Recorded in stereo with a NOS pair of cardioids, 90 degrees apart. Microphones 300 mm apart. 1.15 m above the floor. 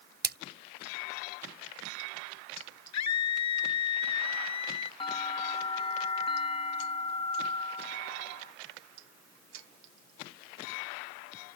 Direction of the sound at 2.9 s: 65° left.